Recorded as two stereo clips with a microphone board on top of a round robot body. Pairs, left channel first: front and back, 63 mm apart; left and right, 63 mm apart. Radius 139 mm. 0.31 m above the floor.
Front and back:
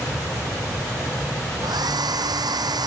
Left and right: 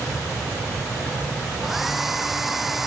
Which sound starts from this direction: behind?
A hair dryer, at 1.6 s.